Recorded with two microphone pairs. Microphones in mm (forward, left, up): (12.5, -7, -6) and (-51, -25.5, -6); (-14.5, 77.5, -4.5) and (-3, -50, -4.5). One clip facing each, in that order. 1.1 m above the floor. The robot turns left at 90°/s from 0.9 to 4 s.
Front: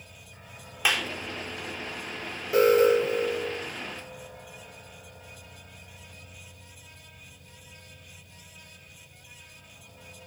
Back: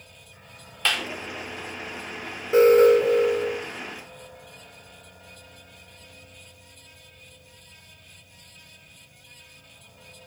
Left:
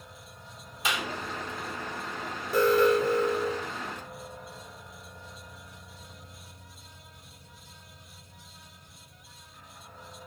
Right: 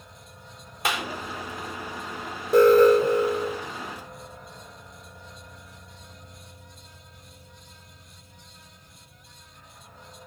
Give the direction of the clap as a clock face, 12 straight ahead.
2 o'clock.